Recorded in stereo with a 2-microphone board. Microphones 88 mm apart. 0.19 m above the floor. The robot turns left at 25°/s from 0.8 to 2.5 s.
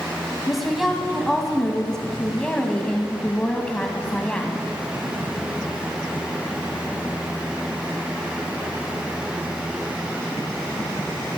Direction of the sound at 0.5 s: Centre (ahead or behind).